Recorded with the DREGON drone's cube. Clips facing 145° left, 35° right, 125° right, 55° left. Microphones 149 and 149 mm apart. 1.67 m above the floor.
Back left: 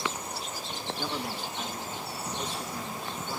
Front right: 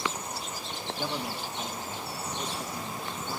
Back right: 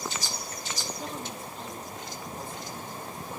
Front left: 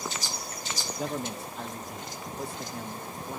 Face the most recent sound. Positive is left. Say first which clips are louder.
# front right 1 dB, front left 4 dB
turn(degrees=45)